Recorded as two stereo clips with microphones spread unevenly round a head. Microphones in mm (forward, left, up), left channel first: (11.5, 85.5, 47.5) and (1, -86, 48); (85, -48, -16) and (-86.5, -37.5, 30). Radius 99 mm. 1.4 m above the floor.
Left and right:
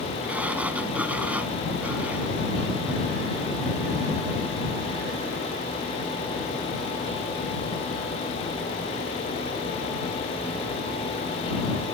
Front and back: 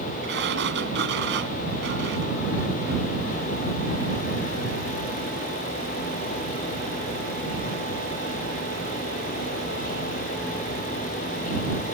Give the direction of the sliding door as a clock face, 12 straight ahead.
6 o'clock.